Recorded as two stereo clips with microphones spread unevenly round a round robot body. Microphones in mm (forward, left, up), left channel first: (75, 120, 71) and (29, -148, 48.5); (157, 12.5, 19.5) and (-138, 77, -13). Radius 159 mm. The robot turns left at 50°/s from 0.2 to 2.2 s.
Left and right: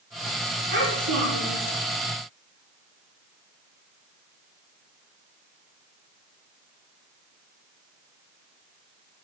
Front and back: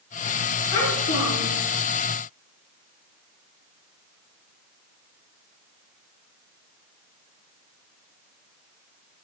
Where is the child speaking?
45° right, 3.5 m; by 1.6 s 90° right, 3.5 m.